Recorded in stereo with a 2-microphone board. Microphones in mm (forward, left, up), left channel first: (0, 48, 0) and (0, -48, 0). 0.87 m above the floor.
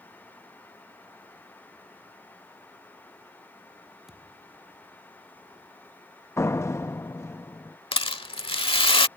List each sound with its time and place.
4.1 s a thud: 5° right (ahead or behind)
6.4 s a door slam: 30° left (ahead or behind)
7.9 s a rattle: 70° left (ahead or behind)